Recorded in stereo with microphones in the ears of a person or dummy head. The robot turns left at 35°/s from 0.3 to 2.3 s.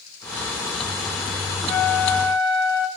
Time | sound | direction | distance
1.7 | a flute | 35° left (ahead or behind) | 1.5 m